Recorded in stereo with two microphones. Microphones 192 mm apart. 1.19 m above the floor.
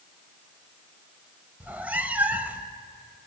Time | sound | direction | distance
1.6 | a cat meowing | 10° right (ahead or behind) | 1.3 m